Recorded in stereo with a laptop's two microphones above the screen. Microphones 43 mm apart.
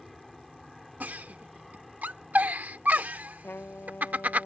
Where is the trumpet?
55° left (ahead or behind).